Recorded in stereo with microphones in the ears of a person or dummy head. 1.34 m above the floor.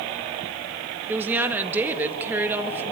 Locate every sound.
1.1 s a woman speaking: 10° right (ahead or behind), 1.6 m